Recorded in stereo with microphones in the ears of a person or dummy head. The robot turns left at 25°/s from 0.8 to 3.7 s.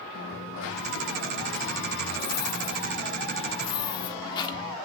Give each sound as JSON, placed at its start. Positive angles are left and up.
{"t": 0.1, "sound": "a dropped coin", "azimuth_deg": 100, "distance_m": 1.6}